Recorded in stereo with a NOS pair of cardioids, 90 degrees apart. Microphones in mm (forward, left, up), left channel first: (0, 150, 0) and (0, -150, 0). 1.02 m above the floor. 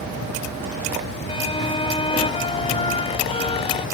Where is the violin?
20° left.